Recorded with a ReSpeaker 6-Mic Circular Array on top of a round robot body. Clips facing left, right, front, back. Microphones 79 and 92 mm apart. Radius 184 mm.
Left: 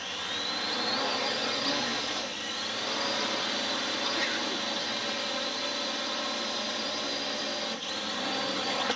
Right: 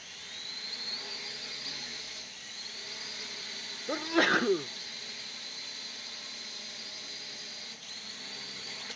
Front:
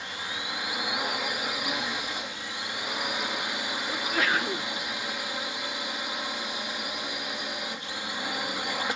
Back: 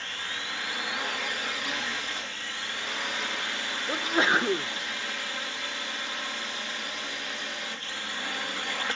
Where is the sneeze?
115° right.